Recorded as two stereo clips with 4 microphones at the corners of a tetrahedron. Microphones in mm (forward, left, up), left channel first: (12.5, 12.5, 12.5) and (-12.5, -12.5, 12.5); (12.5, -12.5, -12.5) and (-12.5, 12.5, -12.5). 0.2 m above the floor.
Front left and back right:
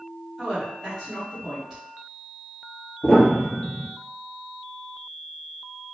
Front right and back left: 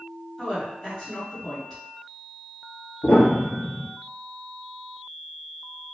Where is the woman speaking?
90° right, 1.6 m.